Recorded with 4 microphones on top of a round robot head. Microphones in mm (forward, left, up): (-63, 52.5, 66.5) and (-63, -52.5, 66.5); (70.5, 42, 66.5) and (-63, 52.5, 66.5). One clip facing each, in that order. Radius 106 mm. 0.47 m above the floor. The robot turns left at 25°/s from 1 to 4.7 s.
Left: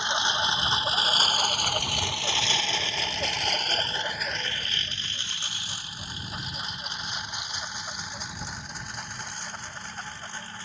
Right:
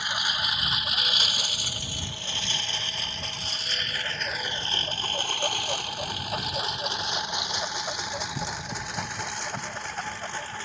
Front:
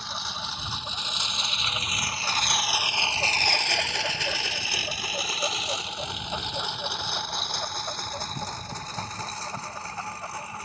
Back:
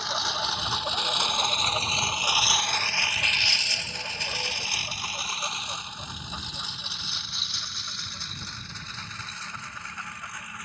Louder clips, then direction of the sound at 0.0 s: Left 4 dB, back 6 dB; 155° left.